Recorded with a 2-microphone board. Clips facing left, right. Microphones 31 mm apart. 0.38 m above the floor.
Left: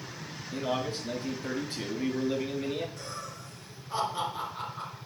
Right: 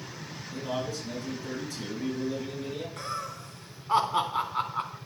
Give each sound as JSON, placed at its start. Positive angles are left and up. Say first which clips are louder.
{"t": 0.5, "sound": "a man speaking", "louder": "left 2 dB", "side_deg": 35, "distance_m": 6.5}
{"t": 3.0, "sound": "laughter", "louder": "right 5 dB", "side_deg": -60, "distance_m": 3.5}